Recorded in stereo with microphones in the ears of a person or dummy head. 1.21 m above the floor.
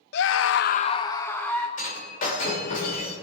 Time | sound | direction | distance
0.1 | a scream | 65° left (ahead or behind) | 0.7 m
1.8 | breaking glass | 50° left (ahead or behind) | 3 m